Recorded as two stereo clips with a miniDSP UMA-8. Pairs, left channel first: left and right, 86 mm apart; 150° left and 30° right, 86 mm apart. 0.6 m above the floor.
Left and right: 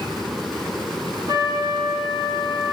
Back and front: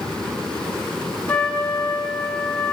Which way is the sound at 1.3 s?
135° right.